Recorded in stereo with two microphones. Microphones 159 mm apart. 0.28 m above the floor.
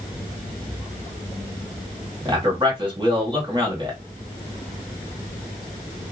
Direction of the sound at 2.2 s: 30° right (ahead or behind).